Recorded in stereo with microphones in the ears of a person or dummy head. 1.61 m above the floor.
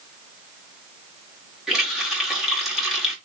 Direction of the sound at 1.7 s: Centre (ahead or behind).